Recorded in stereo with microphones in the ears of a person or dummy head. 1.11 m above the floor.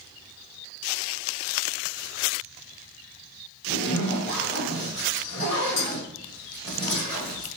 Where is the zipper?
35° left (ahead or behind), 1.1 m.